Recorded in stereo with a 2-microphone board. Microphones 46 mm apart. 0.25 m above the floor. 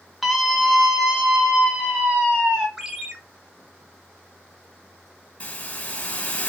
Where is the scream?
Centre (ahead or behind), 1.3 m; by 2.7 s 20° right (ahead or behind), 1.6 m.